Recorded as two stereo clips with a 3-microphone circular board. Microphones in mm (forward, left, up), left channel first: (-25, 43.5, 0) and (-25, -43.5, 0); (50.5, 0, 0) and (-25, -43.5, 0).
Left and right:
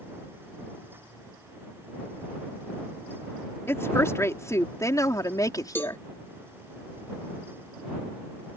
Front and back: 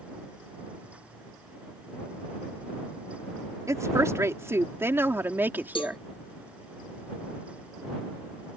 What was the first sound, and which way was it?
A woman speaking, 155° left.